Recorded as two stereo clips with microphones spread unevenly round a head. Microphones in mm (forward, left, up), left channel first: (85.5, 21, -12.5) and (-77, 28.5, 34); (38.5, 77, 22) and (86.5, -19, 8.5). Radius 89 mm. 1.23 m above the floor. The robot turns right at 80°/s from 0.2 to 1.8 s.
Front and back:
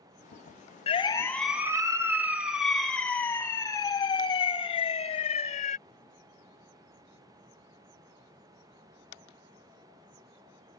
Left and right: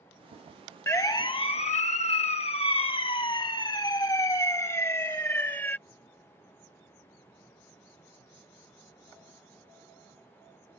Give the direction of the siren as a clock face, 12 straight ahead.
10 o'clock.